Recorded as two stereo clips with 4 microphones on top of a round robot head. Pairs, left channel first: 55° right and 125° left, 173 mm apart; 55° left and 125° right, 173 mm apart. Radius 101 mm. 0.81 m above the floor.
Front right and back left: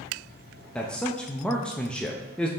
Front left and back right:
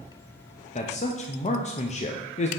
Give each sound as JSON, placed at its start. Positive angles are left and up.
{"t": 0.8, "sound": "a man speaking", "azimuth_deg": 25, "distance_m": 0.6}